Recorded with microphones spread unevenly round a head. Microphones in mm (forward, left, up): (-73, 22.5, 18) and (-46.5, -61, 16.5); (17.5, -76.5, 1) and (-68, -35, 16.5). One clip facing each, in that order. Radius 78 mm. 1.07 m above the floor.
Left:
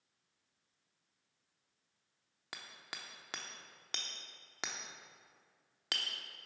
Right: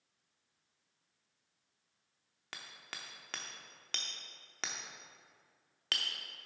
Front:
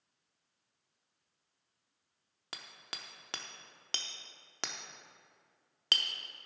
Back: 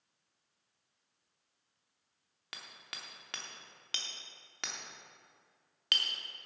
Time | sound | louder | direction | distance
2.5 | hammering | even, front 1 dB | 35° left | 0.7 m